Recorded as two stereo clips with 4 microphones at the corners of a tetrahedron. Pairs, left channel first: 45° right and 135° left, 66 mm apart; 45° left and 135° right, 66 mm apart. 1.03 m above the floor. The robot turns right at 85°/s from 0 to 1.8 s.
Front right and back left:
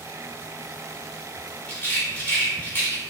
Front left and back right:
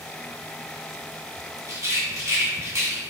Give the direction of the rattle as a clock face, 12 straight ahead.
4 o'clock.